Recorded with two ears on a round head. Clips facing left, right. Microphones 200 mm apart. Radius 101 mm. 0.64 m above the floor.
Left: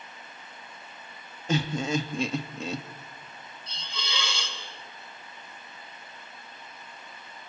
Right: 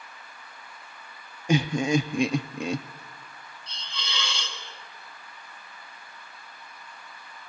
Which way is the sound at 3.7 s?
75° left (ahead or behind).